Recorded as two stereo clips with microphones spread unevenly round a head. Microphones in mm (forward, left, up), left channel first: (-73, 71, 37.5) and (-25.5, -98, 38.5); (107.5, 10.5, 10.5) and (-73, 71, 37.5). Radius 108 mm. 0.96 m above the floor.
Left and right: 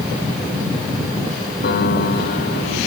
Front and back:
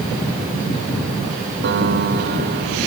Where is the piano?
130° left.